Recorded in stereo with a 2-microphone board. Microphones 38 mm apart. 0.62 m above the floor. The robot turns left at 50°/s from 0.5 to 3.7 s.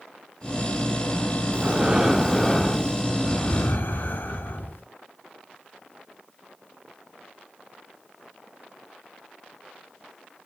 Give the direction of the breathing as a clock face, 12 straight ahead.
5 o'clock.